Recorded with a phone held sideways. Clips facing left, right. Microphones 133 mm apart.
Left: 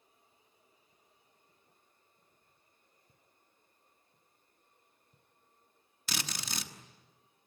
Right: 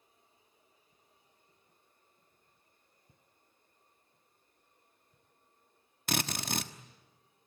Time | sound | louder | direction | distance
3.1 | footsteps | right 1 dB | 20° right (ahead or behind) | 1.2 m
6.1 | a drill | right 7 dB | 55° right (ahead or behind) | 1.4 m